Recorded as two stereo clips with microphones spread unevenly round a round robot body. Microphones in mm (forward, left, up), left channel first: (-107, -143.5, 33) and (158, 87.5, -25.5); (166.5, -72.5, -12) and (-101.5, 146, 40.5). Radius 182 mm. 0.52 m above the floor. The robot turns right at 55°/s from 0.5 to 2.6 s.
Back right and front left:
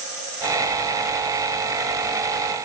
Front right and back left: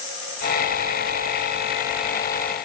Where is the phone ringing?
I don't hear a phone ringing.